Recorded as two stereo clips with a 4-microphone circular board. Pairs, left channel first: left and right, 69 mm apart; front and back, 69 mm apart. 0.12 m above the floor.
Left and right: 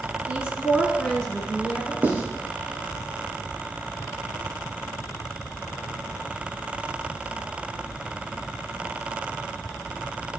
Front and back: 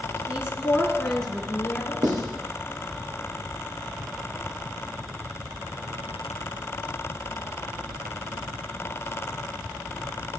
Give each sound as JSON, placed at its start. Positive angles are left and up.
{"t": 0.3, "sound": "a woman speaking", "azimuth_deg": -125, "distance_m": 1.5}
{"t": 2.0, "sound": "writing", "azimuth_deg": -155, "distance_m": 2.0}